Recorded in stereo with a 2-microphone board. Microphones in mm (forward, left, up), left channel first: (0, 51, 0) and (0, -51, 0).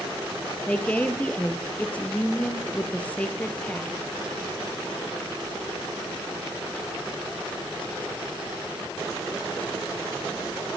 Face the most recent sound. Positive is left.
turn(degrees=15)  # may be behind; listen again after turning